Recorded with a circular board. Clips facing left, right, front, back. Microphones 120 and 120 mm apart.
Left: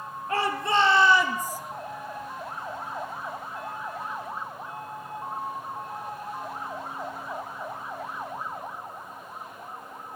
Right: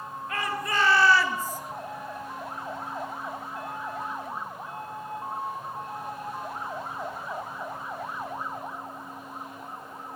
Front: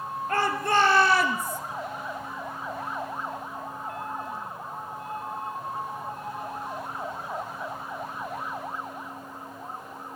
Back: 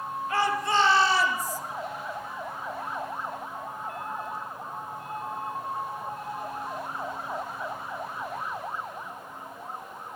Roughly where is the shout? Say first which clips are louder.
Left 5 dB, front 1 dB; ahead left.